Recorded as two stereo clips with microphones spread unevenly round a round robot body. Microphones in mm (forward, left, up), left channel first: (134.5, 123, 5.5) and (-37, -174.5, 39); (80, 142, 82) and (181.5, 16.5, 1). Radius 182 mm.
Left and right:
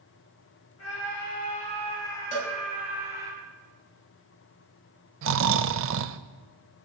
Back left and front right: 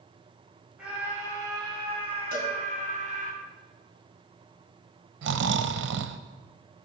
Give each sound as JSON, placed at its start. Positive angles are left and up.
{"t": 0.8, "sound": "a scream", "azimuth_deg": 20, "distance_m": 3.0}
{"t": 2.3, "sound": "a cowbell", "azimuth_deg": -45, "distance_m": 4.0}
{"t": 5.2, "sound": "snoring", "azimuth_deg": -65, "distance_m": 0.7}